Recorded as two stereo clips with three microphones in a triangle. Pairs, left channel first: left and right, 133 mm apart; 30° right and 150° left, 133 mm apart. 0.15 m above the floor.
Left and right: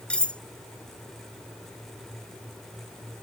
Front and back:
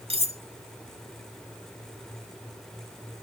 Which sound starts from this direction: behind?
Cutlery clinking, at 0.1 s.